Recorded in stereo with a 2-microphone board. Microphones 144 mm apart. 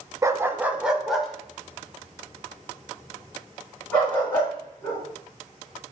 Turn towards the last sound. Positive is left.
turn(degrees=15)  # may be behind; listen again after turning